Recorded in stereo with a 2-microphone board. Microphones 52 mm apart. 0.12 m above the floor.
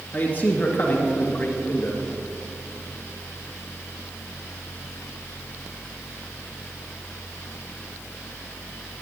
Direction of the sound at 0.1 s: 30° left (ahead or behind).